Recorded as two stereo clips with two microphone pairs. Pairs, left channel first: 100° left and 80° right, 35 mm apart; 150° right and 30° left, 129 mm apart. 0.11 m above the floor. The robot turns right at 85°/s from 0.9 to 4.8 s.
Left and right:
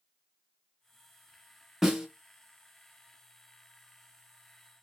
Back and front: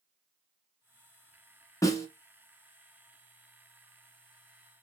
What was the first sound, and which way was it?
A snare drum, 145° right.